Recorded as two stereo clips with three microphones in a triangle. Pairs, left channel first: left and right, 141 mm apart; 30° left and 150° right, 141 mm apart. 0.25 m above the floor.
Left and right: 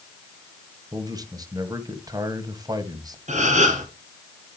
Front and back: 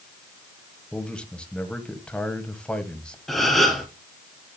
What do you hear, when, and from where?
0.9 s a man speaking: 50° right, 1.6 m
3.3 s a gasp: 60° right, 2.5 m